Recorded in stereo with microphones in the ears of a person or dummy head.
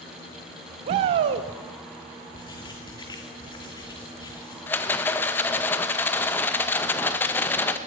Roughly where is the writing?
Left.